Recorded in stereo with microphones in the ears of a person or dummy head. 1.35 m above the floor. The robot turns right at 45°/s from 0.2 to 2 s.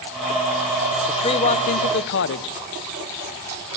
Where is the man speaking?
20° left, 0.7 m; by 2.5 s 60° left, 0.7 m.